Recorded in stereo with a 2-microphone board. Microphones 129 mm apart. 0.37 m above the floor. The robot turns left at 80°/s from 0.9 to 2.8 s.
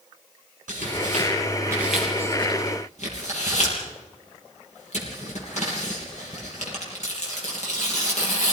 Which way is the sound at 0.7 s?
85° right.